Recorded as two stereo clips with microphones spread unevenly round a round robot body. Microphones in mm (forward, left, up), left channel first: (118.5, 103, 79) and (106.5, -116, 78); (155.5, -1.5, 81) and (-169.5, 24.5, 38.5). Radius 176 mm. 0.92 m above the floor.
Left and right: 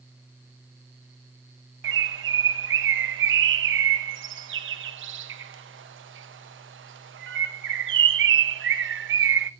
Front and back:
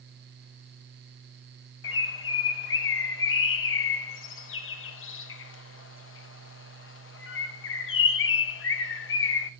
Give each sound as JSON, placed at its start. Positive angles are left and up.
{"t": 1.8, "sound": "a bird", "azimuth_deg": -60, "distance_m": 0.7}